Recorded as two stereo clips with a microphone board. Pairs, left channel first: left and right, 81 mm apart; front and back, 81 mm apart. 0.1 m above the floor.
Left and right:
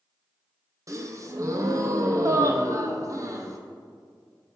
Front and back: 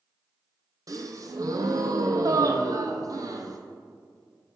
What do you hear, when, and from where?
0.9 s a gasp: 140° right, 0.6 m